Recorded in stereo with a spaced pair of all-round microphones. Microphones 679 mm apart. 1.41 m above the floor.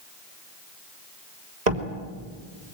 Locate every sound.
1.7 s a door slam: 75° right (ahead or behind), 3 m